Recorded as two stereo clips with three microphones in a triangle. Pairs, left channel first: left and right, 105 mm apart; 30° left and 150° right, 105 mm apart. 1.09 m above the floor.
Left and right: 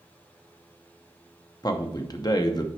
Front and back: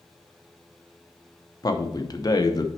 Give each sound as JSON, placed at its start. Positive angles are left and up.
{"t": 1.6, "sound": "a man speaking", "azimuth_deg": 60, "distance_m": 0.9}